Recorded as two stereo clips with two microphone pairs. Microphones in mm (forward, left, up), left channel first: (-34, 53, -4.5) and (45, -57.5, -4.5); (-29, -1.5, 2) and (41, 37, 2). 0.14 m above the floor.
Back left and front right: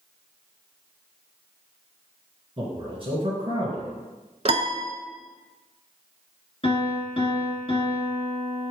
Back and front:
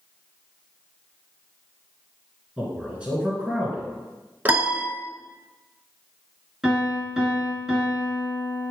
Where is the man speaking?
40° right, 2 m.